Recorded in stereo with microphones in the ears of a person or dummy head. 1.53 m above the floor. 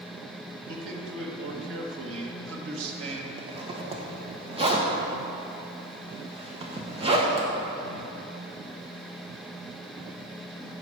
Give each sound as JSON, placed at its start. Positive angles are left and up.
{"t": 0.7, "sound": "a man speaking", "side_deg": -80, "distance_m": 1.5}
{"t": 3.4, "sound": "a zipper", "side_deg": -25, "distance_m": 1.3}